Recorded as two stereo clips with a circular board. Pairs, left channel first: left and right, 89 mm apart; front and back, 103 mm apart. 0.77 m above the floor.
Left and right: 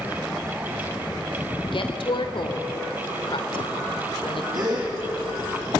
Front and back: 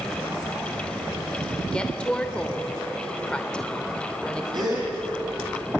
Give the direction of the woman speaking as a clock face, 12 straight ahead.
9 o'clock.